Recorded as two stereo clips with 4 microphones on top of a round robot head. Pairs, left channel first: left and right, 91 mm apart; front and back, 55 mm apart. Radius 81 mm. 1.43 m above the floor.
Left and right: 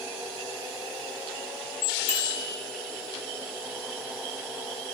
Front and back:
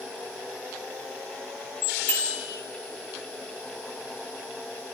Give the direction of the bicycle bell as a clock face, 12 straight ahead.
10 o'clock.